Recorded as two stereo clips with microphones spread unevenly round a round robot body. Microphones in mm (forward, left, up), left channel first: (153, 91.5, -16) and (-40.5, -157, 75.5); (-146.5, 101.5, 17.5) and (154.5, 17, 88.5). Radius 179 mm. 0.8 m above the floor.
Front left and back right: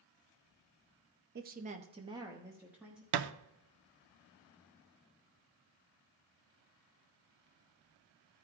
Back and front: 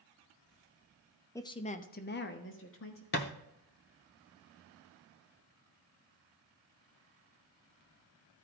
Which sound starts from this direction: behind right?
A thud, at 3.1 s.